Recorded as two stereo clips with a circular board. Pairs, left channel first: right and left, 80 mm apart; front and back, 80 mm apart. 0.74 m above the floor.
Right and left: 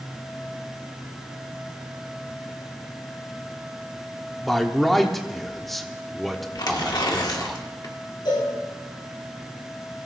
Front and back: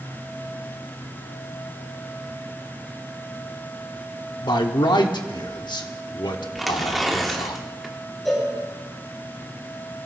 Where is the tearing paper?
90° right, 1.7 m.